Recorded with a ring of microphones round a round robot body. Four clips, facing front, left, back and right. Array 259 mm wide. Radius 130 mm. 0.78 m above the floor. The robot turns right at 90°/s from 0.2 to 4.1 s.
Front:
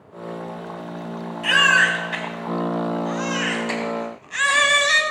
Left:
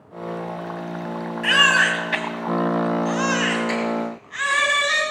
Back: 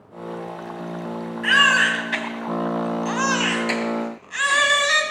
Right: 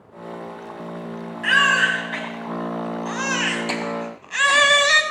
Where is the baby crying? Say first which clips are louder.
Even, even; 35° left, 2.0 m; by 5.0 s 85° right, 2.0 m.